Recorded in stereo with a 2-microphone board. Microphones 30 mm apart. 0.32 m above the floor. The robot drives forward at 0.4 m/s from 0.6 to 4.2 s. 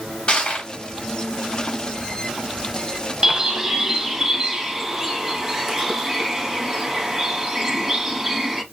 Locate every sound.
0.3 s crushing: 35° left (ahead or behind), 1.6 m
3.2 s a bird: 25° right (ahead or behind), 0.5 m; by 8.6 s 15° right (ahead or behind), 0.9 m